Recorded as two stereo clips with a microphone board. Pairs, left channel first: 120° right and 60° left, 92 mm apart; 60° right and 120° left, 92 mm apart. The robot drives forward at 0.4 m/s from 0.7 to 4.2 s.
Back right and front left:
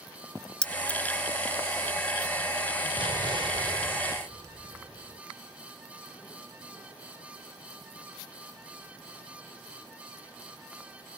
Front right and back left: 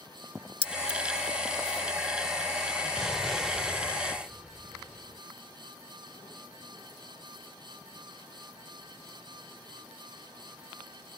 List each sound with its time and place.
0.6 s keys jangling: 40° right; by 1.0 s 45° right
3.0 s an explosion: 30° left; by 5.2 s 35° left